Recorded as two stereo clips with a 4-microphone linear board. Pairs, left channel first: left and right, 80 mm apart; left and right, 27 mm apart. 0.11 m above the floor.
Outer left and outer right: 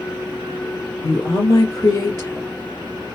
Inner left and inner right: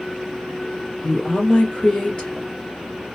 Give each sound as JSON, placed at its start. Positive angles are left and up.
{"t": 1.0, "sound": "a woman speaking", "side_deg": 45, "distance_m": 2.5}